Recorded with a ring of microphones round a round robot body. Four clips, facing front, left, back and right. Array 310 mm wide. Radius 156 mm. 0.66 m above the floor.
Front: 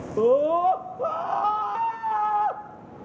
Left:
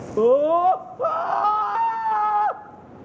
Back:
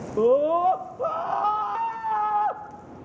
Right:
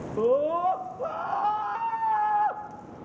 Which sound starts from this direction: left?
A scream, at 0.2 s.